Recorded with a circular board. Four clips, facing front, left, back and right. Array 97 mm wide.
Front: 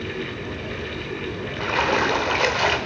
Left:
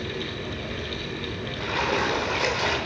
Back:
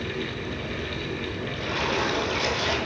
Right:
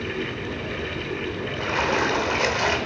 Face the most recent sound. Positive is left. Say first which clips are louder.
# right 2 dB, front 6 dB
turn(degrees=-15)